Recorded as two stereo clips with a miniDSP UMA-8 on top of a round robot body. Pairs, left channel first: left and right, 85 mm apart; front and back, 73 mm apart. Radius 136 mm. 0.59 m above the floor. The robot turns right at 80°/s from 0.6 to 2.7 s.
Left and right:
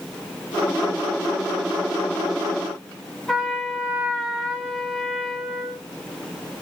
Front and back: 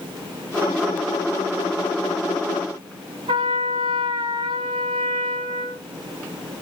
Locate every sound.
3.3 s a trumpet: straight behind, 1.6 m